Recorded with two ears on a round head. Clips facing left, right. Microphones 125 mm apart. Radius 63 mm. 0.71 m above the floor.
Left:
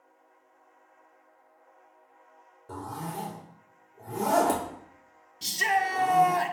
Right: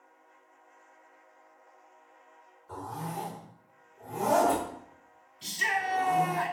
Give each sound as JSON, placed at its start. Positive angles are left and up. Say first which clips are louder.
{"t": 2.7, "sound": "a zipper", "louder": "left 1 dB", "side_deg": 45, "distance_m": 3.0}
{"t": 5.4, "sound": "a shout", "louder": "left 5 dB", "side_deg": 45, "distance_m": 1.0}